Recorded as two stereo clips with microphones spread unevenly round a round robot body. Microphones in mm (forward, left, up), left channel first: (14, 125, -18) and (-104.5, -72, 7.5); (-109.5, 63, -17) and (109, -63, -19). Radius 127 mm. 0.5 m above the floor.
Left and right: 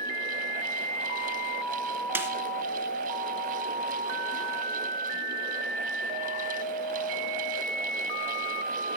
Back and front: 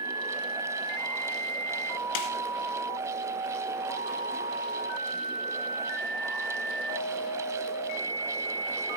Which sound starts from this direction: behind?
A snare drum, at 2.1 s.